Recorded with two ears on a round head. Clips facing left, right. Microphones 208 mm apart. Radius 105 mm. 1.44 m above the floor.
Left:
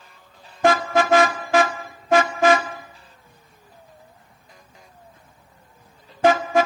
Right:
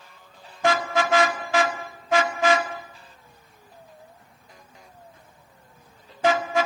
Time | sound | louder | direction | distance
0.6 | a car horn | left 5 dB | 45° left (ahead or behind) | 2 m